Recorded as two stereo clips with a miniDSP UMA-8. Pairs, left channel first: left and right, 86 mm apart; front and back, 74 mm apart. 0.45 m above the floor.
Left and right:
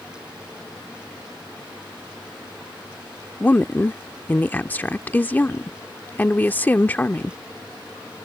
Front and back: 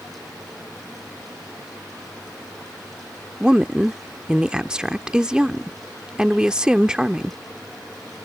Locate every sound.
3.4 s a woman speaking: 115° left